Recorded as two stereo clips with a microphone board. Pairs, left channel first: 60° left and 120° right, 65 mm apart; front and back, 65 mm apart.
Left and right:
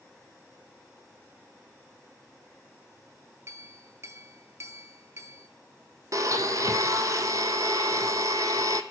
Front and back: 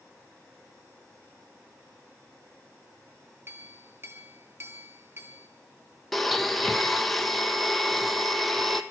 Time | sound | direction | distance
3.5 | a clink | 140° right | 1.3 m
6.1 | a blender | 90° right | 0.9 m